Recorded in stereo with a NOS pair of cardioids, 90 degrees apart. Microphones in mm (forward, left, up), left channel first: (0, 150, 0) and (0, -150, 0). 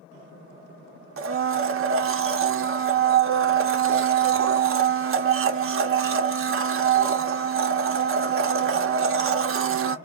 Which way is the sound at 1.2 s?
50° right.